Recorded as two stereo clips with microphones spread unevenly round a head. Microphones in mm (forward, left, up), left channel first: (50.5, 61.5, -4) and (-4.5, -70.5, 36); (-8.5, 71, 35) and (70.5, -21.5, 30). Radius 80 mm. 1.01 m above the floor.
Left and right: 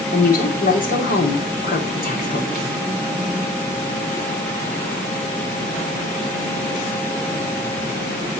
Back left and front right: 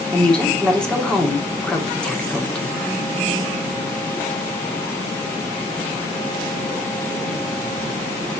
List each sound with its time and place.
0.1 s a woman speaking: 50° left, 2.5 m